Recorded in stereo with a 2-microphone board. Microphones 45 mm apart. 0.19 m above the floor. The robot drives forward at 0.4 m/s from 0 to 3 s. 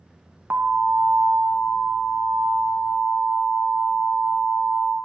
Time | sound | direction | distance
0.5 | an alarm | 45° right (ahead or behind) | 1.3 m